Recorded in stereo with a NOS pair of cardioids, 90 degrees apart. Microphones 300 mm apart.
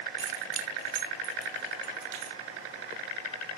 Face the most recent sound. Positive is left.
turn(degrees=-75)